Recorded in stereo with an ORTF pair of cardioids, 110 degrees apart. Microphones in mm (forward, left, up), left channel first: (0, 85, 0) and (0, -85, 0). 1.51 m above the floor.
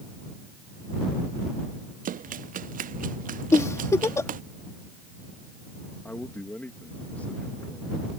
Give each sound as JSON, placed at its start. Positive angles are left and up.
{"t": 2.0, "sound": "running footsteps", "azimuth_deg": -55}
{"t": 3.5, "sound": "a giggle", "azimuth_deg": 15}
{"t": 6.0, "sound": "a man speaking", "azimuth_deg": 10}